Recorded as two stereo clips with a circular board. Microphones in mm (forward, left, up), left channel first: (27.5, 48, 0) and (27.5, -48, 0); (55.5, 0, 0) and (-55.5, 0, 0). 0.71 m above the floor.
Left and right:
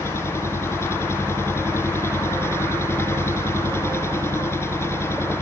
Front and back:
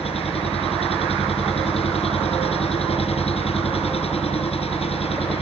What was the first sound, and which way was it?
An engine running, 25° left.